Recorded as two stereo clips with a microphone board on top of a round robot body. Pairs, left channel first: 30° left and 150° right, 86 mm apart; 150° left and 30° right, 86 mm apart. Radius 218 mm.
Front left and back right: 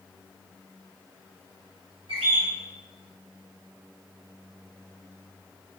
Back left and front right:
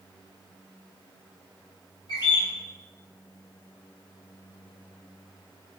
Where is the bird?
165° right, 1.7 m.